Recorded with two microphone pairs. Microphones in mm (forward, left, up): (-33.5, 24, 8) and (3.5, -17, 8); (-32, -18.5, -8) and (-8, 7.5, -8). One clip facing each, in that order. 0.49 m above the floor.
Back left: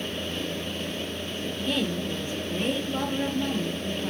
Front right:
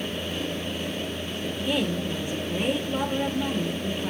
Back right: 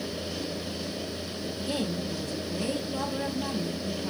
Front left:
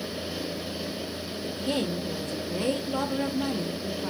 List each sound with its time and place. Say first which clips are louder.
1.4 s a woman speaking: front right 2 dB, front left 3 dB; 25° left, 1.5 m